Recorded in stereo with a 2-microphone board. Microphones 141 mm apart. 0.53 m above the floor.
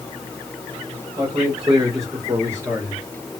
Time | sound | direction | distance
1.2 | a man speaking | 30° right (ahead or behind) | 2 m